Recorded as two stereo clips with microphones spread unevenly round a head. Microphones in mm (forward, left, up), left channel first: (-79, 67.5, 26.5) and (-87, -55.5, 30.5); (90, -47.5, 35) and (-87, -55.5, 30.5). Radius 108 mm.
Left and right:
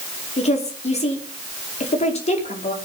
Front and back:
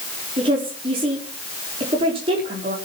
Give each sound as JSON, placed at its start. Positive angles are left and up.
{"t": 0.4, "sound": "a woman speaking", "azimuth_deg": 115, "distance_m": 5.0}